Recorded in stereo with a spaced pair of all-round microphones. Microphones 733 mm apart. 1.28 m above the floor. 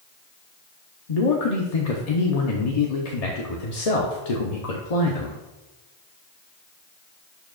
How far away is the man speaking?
About 0.9 m.